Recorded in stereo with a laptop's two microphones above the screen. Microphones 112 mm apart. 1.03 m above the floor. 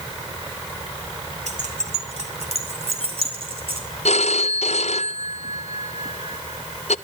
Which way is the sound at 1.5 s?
75° right (ahead or behind).